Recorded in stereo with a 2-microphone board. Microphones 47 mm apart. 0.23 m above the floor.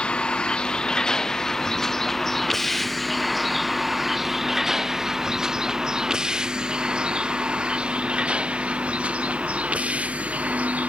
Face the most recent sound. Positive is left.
turn(degrees=-30)  # may be behind; listen again after turning